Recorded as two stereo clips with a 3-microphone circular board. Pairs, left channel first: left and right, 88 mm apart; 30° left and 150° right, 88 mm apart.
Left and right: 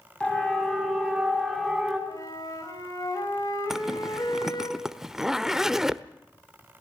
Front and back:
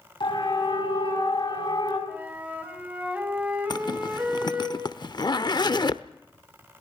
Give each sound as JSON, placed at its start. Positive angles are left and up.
{"t": 0.2, "sound": "a siren", "azimuth_deg": 10, "distance_m": 7.5}
{"t": 2.1, "sound": "a flute", "azimuth_deg": 135, "distance_m": 4.5}
{"t": 3.7, "sound": "a zipper", "azimuth_deg": -5, "distance_m": 0.7}